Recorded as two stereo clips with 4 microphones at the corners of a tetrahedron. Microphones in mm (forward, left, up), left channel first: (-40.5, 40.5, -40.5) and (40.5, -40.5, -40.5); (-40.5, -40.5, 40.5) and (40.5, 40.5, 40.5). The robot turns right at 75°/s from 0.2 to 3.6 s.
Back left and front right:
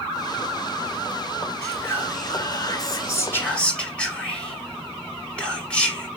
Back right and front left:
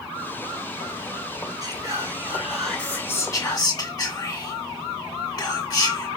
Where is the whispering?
60° left, 1.8 m; by 6.1 s 150° right, 1.8 m.